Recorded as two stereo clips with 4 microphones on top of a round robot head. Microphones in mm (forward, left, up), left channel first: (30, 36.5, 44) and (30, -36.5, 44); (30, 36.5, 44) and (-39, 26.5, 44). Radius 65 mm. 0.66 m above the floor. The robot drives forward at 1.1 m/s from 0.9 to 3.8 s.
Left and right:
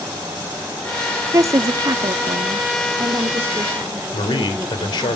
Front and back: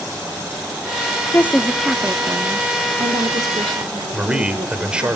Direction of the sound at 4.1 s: 115° left.